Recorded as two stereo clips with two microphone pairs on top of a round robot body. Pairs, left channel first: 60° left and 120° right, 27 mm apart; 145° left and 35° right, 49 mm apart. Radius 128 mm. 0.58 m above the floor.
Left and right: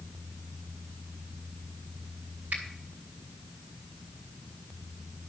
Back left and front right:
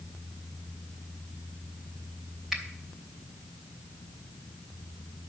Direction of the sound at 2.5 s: 115° right.